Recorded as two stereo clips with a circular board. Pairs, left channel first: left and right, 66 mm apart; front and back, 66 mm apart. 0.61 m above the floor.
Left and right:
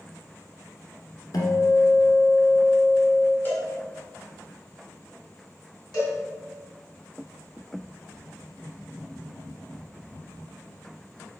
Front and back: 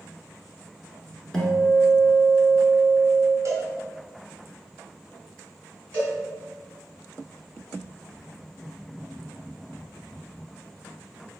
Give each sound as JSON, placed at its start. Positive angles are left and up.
{"t": 1.3, "sound": "a guitar", "azimuth_deg": 80, "distance_m": 1.2}
{"t": 3.5, "sound": "a cowbell", "azimuth_deg": 145, "distance_m": 1.2}
{"t": 5.9, "sound": "a cowbell", "azimuth_deg": 70, "distance_m": 1.8}